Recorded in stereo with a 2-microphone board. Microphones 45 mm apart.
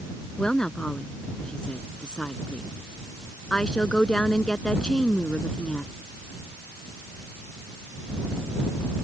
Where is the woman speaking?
15° left (ahead or behind).